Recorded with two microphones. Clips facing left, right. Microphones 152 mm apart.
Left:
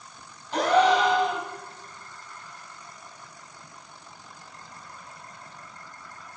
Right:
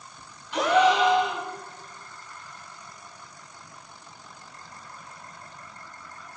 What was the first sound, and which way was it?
A gasp, 45° left (ahead or behind).